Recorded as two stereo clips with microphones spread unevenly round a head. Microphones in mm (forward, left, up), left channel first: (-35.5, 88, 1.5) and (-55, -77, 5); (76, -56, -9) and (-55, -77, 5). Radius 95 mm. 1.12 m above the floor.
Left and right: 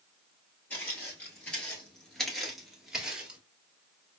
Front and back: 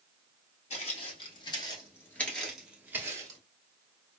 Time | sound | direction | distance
0.7 | footsteps | 5° left | 1.4 m